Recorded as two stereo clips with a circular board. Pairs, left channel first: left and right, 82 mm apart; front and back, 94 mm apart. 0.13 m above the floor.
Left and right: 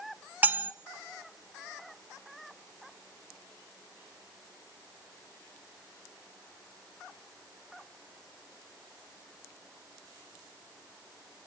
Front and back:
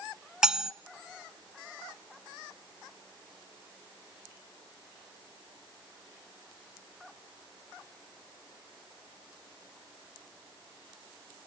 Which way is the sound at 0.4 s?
110° right.